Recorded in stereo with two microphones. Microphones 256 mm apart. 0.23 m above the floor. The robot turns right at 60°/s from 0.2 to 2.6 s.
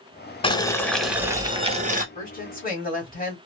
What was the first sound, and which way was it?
Boiling, 145° left.